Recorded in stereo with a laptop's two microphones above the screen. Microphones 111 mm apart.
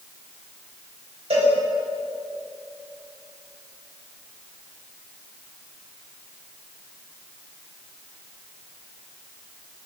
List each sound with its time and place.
1.3 s a cowbell: 65° right (ahead or behind), 4.5 m